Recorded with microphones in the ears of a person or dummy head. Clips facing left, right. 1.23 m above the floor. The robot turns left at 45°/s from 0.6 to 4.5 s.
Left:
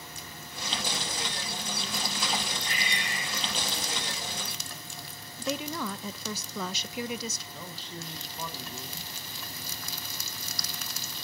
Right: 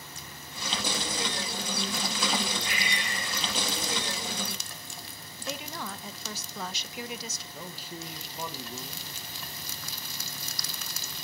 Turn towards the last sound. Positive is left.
turn(degrees=-10)  # may be behind; listen again after turning